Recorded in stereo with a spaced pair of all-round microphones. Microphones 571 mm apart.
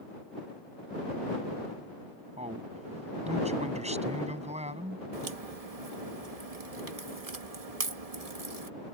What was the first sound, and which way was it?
A man speaking, 10° right (ahead or behind).